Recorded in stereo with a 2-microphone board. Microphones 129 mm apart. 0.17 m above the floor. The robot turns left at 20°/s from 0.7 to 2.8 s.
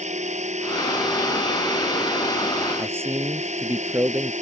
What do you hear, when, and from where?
0.0 s a drone: 65° right (ahead or behind)
2.8 s a man speaking: 20° right (ahead or behind)